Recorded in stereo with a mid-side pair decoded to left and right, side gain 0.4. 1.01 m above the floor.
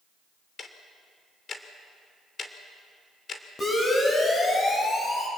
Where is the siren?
45° left, 8 m.